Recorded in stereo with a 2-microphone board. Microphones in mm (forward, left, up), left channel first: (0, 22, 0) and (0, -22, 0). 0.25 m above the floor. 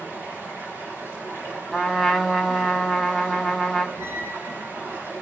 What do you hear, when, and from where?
0.0 s running water: 65° right (ahead or behind), 8 m
1.7 s a trumpet: centre (ahead or behind), 1.4 m
4.0 s a squeak: 55° right (ahead or behind), 1.3 m